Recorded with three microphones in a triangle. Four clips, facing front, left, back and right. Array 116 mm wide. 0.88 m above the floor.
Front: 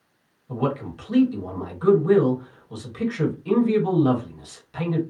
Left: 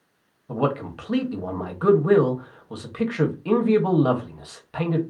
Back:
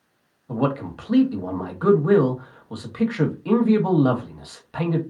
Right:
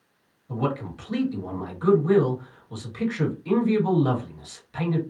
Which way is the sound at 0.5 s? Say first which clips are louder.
Left 3 dB, back 2 dB; 130° left.